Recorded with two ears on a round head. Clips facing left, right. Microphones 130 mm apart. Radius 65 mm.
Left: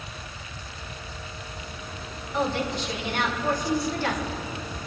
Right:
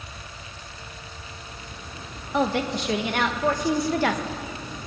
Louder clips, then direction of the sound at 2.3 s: Right 3 dB; 55° right (ahead or behind).